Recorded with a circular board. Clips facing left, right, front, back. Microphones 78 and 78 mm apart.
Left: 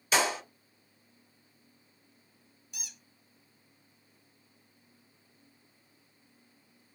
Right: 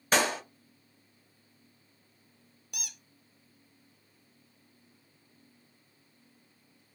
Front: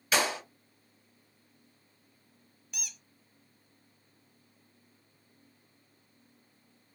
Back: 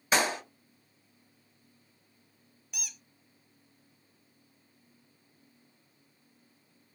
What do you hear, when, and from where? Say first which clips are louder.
0.1 s a clap: right 1 dB, back 1 dB; 125° right, 1.8 m
2.7 s a squeak: right 4 dB, even; 90° right, 0.5 m